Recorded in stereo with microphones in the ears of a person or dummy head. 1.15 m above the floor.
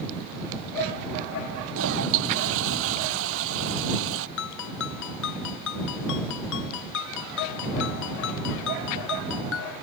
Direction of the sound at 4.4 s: 70° left (ahead or behind).